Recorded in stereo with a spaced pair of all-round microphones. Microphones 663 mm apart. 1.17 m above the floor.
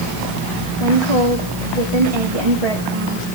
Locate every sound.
0.8 s a woman speaking: 55° right (ahead or behind), 3 m